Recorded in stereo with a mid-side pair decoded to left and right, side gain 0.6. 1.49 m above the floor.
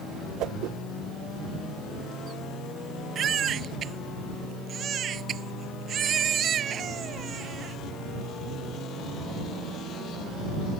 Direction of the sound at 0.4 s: 65° right.